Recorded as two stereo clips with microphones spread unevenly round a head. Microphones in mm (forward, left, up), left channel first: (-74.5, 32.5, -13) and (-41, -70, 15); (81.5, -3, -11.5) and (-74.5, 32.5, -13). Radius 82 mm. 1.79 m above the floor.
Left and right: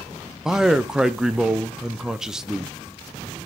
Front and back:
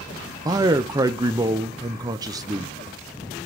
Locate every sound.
0.5 s a man speaking: 135° right, 0.6 m